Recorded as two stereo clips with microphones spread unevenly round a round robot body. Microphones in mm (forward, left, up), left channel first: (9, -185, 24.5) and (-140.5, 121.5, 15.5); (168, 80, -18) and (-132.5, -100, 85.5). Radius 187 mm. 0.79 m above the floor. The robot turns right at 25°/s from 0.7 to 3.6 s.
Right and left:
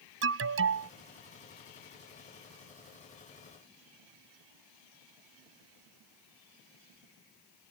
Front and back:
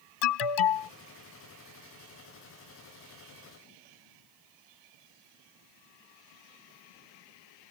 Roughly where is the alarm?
Ahead left.